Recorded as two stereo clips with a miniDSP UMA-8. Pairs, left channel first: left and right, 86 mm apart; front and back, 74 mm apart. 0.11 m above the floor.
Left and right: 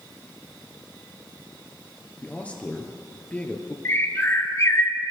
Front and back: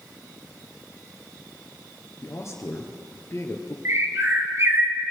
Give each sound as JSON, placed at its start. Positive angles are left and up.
{"t": 2.2, "sound": "a man speaking", "azimuth_deg": 25, "distance_m": 2.0}
{"t": 3.9, "sound": "a bird", "azimuth_deg": 135, "distance_m": 2.0}